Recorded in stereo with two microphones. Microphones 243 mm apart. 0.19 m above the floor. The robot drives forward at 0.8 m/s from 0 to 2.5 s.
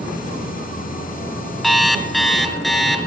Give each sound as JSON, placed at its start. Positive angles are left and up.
{"t": 1.6, "sound": "an alarm clock", "side_deg": 0, "distance_m": 1.0}